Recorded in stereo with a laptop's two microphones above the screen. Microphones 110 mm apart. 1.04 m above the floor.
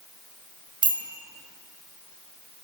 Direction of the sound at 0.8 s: 45° right (ahead or behind).